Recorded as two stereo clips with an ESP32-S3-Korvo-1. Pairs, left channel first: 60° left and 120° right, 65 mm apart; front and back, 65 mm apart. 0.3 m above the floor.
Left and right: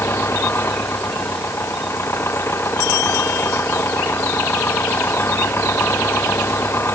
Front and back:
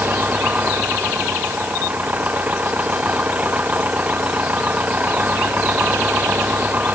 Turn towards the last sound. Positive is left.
turn(degrees=110)